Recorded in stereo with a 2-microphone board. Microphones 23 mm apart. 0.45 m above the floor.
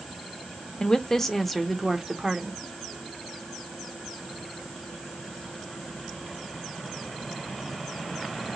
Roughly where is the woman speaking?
Left.